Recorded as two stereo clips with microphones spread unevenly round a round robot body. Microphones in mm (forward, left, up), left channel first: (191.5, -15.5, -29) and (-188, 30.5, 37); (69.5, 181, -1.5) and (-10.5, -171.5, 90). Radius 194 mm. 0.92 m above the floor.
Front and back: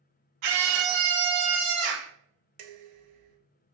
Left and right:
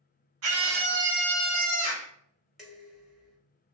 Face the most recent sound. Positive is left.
turn(degrees=165)